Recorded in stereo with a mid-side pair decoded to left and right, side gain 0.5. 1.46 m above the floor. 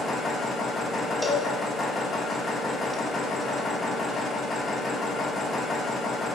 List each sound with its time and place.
0.0 s a machine running: 40° left, 2 m
1.2 s a cowbell: 15° left, 1.1 m